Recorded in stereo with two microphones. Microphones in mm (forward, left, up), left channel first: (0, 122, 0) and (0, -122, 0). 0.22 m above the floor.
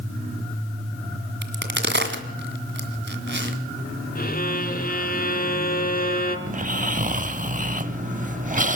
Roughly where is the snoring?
Right.